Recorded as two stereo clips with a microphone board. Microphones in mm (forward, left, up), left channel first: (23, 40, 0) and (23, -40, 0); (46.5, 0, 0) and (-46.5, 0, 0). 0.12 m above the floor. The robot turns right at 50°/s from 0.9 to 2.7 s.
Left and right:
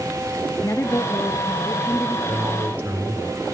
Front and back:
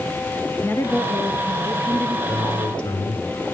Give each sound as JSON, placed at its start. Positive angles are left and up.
{"t": 0.6, "sound": "a woman speaking", "azimuth_deg": 50, "distance_m": 1.8}
{"t": 2.3, "sound": "a man speaking", "azimuth_deg": -50, "distance_m": 4.0}